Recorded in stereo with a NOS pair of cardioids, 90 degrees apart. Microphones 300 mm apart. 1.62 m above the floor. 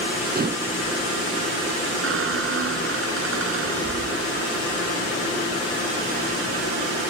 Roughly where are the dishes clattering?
Ahead right.